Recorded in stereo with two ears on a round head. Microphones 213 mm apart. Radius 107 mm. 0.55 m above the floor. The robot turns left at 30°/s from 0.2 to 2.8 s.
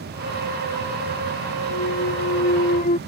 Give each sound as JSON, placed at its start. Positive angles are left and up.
{"t": 1.7, "sound": "a clunk", "azimuth_deg": 65}